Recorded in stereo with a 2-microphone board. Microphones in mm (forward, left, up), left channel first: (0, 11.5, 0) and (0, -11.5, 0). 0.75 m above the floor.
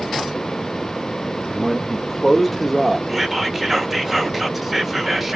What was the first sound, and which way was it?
A man speaking, 25° left (ahead or behind).